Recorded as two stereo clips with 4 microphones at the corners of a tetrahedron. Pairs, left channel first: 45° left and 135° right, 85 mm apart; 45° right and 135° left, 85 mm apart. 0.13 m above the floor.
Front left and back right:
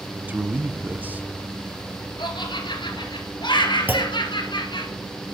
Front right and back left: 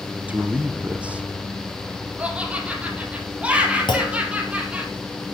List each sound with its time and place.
0.3 s a man speaking: 175° right, 1.1 m
2.2 s laughter: 60° left, 2.5 m
3.9 s a clunk: 70° right, 2 m